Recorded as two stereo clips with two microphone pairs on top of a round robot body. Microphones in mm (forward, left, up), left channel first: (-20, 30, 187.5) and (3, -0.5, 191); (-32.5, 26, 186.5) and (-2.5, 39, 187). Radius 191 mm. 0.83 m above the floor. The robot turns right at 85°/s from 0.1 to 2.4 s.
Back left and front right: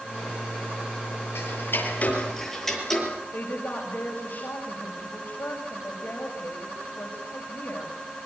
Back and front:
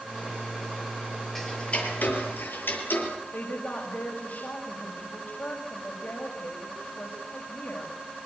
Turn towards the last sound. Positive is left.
turn(degrees=170)